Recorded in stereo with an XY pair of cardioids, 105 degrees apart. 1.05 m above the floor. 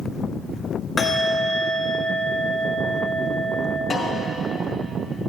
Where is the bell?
35° left, 1.6 m.